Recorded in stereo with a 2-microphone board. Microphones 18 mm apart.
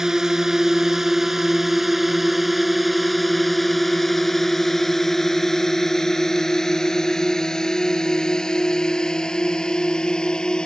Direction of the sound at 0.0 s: 30° right (ahead or behind).